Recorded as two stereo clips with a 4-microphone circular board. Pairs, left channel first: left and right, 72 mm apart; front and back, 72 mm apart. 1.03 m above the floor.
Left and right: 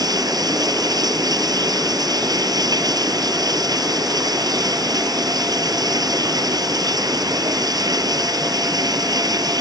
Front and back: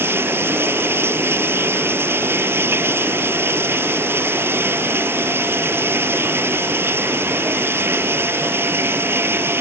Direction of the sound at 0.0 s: 120° right.